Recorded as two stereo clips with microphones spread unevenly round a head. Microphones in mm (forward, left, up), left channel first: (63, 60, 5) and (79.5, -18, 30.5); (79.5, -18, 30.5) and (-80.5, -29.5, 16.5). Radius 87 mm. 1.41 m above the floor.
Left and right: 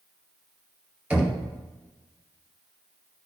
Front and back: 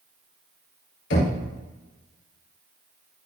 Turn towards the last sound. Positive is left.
turn(degrees=-5)